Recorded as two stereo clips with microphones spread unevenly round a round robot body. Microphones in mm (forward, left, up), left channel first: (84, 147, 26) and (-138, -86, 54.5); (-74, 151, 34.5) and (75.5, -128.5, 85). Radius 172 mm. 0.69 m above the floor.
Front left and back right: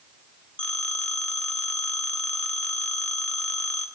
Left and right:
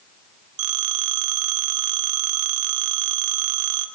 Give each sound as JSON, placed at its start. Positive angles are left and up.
{"t": 0.6, "sound": "a phone ringing", "azimuth_deg": -40, "distance_m": 2.5}